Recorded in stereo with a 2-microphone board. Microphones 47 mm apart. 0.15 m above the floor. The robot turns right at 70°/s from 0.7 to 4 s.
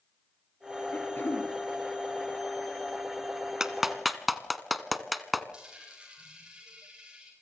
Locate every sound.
0.9 s throat clearing: 45° left, 3 m; by 1.5 s 85° left, 3 m
3.6 s a clap: 15° right (ahead or behind), 1.2 m; by 5.4 s centre (ahead or behind), 1.2 m
5.5 s a dropped coin: 20° right (ahead or behind), 8.5 m